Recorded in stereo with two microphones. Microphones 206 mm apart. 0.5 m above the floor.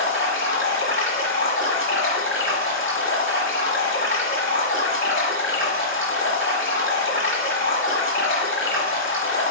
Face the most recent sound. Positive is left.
turn(degrees=70)  # may be behind; listen again after turning